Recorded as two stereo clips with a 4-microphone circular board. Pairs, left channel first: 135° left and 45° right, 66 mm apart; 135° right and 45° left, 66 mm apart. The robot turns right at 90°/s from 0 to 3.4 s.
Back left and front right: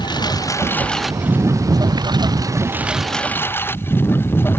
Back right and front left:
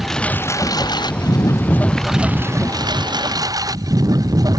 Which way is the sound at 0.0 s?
130° left.